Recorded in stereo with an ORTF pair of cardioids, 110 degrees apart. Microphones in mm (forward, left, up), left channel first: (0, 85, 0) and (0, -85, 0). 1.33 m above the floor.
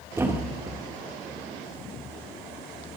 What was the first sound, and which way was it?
A thud, 15° right.